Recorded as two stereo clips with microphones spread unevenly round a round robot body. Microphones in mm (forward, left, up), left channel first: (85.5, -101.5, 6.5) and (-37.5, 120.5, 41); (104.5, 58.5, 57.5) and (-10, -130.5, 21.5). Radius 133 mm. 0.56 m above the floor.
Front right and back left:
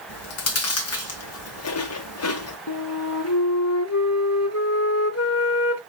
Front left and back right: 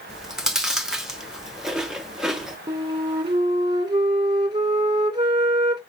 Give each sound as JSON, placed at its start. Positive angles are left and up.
{"t": 0.1, "sound": "chewing", "azimuth_deg": -35, "distance_m": 1.2}
{"t": 2.7, "sound": "a flute", "azimuth_deg": -60, "distance_m": 1.9}